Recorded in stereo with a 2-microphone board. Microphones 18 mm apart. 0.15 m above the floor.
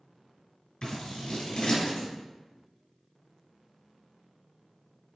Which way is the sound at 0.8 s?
45° left (ahead or behind).